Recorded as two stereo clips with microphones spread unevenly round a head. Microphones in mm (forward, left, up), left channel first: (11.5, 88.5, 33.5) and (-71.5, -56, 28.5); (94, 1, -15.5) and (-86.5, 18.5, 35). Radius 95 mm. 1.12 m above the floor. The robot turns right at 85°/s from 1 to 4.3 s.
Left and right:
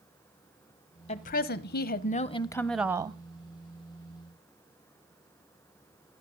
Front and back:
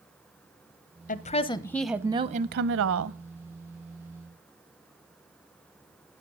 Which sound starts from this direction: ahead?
A woman speaking, at 1.1 s.